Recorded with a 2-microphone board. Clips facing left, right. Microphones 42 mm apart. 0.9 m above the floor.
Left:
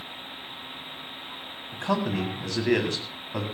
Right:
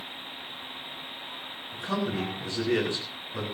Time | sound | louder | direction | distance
1.7 | a man speaking | left 3 dB | 75° left (ahead or behind) | 8 m